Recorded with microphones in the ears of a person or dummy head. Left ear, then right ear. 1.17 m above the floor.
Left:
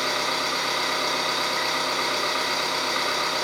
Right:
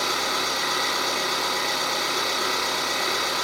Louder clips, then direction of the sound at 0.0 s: Even; 10° left (ahead or behind).